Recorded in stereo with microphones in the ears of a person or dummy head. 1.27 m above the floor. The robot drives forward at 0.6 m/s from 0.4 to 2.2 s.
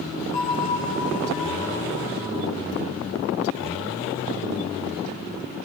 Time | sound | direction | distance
0.3 | a bell | 30° left (ahead or behind) | 1.4 m